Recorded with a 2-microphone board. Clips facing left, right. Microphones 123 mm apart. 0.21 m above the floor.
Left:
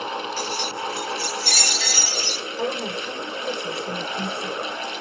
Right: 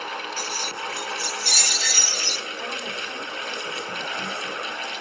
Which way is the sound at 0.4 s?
70° left (ahead or behind).